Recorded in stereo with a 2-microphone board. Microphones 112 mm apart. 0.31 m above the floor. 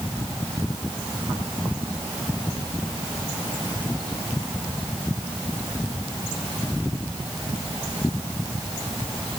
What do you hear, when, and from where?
Only background noise.